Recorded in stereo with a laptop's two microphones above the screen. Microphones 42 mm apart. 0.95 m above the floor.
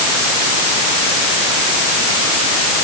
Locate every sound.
Only background noise.